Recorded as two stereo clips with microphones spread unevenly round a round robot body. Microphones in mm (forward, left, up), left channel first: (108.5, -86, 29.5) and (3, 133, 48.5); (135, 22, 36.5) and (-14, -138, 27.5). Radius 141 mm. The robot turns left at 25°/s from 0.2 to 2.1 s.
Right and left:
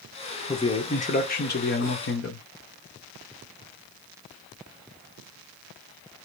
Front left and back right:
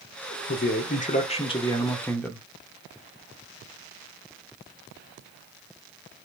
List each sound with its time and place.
0.5 s a man speaking: 5° left, 1.7 m; by 2.5 s 35° right, 1.7 m